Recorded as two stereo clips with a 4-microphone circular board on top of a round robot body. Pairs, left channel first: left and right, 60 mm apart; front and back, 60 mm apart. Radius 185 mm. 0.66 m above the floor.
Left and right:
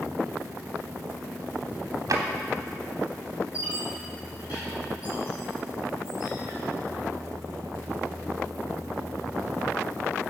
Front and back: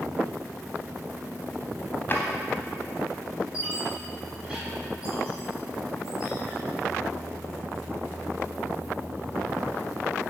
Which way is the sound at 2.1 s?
65° right.